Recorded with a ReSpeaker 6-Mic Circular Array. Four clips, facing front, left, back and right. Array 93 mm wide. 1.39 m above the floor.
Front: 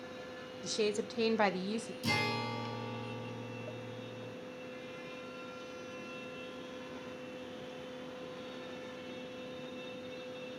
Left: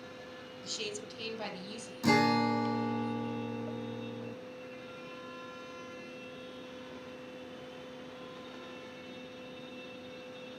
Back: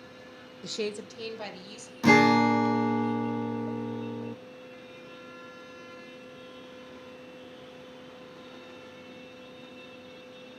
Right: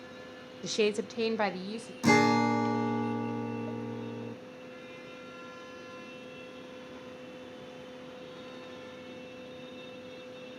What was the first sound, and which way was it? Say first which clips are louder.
A woman speaking: right 14 dB, even; 110° right.